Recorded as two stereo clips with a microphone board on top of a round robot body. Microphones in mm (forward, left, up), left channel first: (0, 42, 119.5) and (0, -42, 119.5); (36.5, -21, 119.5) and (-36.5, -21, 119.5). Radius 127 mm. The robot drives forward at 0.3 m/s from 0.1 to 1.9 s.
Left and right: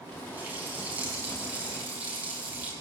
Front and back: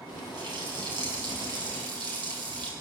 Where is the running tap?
160° right, 6.5 m.